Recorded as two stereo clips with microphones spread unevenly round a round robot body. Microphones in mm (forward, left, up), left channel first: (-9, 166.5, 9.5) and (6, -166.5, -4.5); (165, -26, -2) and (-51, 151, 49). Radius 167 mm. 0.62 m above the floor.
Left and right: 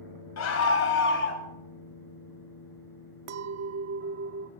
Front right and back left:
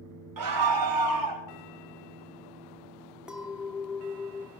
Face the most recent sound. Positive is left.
turn(degrees=-125)